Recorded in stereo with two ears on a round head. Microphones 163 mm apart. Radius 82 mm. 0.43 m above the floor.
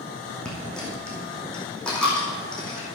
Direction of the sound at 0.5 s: 5° left (ahead or behind).